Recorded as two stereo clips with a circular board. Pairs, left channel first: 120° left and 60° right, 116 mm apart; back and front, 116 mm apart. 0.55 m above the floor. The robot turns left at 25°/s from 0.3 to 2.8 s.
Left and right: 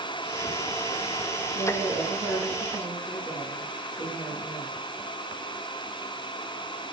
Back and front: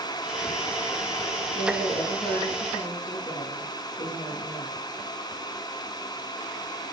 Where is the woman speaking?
120° right, 9.5 m; by 4.7 s 150° right, 9.5 m.